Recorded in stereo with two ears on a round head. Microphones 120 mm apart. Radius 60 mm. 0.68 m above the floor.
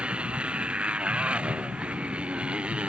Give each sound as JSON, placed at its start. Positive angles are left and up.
{"t": 0.0, "sound": "a motorcycle", "side_deg": -10}